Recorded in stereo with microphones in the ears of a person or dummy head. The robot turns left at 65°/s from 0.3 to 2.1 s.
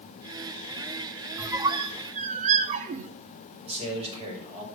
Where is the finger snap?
I don't hear a finger snap.